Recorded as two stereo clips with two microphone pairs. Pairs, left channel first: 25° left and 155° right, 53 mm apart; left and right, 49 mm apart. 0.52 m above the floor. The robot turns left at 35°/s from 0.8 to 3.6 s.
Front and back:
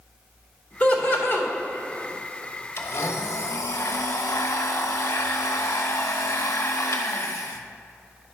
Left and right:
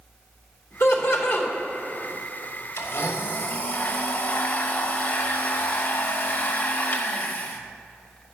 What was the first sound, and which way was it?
Laughter, 80° left.